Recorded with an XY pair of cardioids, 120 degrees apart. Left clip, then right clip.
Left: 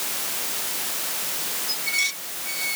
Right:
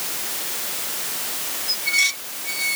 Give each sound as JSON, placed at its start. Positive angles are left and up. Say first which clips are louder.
{"t": 1.7, "sound": "dishes clattering", "louder": "right 5 dB", "azimuth_deg": -25}